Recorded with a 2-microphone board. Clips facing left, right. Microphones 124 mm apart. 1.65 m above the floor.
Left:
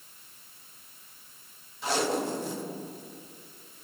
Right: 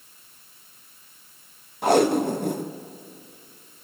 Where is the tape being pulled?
55° right (ahead or behind), 1.2 m.